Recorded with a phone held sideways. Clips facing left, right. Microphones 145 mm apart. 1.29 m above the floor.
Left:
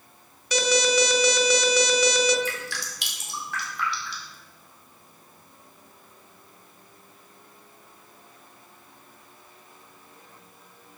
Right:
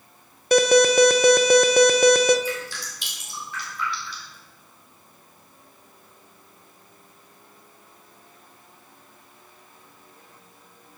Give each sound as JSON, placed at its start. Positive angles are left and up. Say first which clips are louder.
{"t": 0.5, "sound": "an alarm", "louder": "right 7 dB", "side_deg": -55, "distance_m": 0.7}
{"t": 2.5, "sound": "dripping", "louder": "right 3 dB", "side_deg": 75, "distance_m": 2.5}